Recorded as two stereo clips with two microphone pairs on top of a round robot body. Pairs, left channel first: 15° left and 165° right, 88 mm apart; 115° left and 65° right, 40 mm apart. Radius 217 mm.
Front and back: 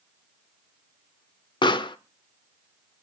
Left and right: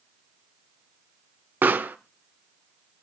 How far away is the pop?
About 0.7 m.